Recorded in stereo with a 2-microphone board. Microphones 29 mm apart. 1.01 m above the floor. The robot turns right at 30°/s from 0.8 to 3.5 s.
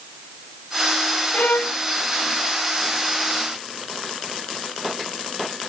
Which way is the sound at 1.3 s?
60° left (ahead or behind).